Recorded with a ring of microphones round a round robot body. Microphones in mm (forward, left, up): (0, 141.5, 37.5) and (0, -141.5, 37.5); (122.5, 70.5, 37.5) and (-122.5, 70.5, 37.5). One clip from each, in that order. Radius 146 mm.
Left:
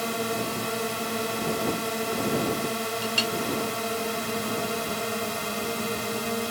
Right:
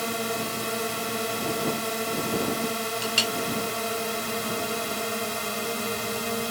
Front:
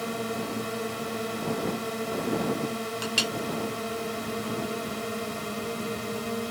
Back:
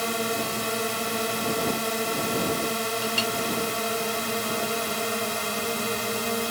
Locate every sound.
0.0 s a drone: 160° right
3.0 s a clink: 50° right